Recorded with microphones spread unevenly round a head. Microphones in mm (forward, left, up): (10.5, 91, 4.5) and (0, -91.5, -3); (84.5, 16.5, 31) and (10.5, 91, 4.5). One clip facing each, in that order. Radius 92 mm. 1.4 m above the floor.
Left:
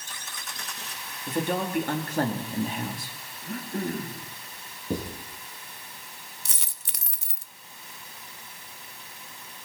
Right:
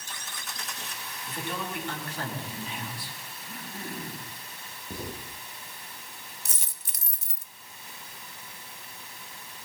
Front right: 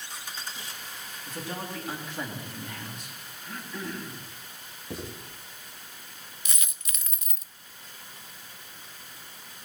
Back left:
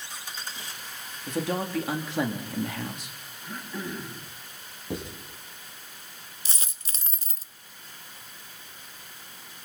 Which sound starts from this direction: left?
A dropped coin, at 6.5 s.